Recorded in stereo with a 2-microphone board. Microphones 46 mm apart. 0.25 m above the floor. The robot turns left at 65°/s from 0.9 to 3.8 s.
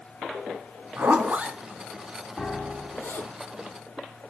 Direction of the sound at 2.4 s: 10° left.